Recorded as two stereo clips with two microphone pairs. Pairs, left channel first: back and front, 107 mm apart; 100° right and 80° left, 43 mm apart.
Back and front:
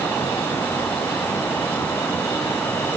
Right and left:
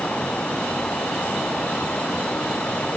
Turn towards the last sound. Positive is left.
No sound to turn to.